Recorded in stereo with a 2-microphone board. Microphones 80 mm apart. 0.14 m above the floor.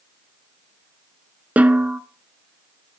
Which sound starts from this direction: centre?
A snare drum, at 1.6 s.